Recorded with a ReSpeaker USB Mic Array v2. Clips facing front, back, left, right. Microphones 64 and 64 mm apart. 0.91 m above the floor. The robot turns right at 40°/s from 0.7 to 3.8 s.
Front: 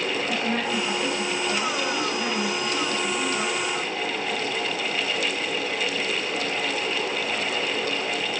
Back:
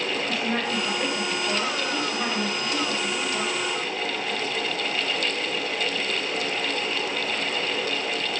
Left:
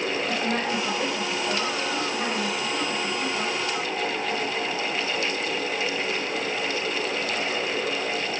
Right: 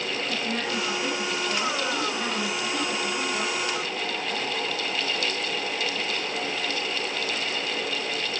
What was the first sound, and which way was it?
A woman speaking, 100° left.